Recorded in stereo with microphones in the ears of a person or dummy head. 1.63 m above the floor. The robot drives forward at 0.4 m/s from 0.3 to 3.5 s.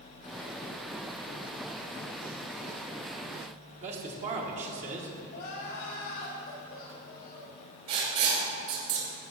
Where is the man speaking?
40° right (ahead or behind), 1.4 m.